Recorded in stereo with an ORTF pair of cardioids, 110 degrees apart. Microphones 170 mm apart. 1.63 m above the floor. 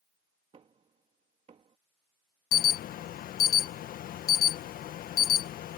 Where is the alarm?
60° left.